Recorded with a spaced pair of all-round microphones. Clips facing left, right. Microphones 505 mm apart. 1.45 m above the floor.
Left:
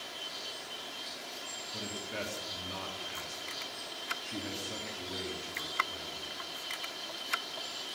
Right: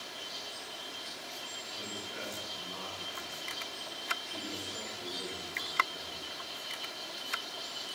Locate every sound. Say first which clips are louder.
1.7 s a man speaking: left 4 dB; 75° left (ahead or behind), 3.5 m